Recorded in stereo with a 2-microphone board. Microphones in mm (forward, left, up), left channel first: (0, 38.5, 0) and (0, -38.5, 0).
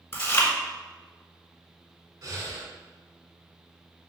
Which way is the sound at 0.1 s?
30° left (ahead or behind).